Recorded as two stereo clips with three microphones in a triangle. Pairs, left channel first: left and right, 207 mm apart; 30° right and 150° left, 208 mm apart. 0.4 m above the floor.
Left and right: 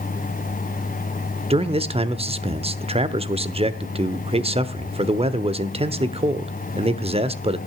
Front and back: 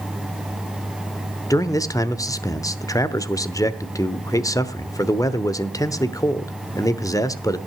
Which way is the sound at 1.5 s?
85° right.